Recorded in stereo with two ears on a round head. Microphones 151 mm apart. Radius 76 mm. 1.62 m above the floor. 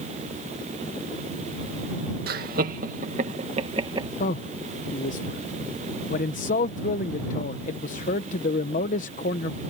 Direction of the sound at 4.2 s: 45° left (ahead or behind).